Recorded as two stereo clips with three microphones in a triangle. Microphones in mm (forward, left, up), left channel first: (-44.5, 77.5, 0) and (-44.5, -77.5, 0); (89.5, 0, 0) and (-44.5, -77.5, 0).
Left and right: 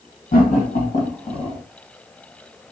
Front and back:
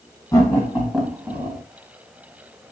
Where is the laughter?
95° left, 2.5 m; by 1.6 s 155° left, 1.8 m.